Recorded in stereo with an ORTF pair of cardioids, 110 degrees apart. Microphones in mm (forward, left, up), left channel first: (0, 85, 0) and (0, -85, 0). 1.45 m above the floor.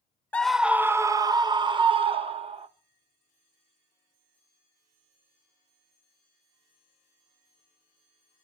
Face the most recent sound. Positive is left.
turn(degrees=-35)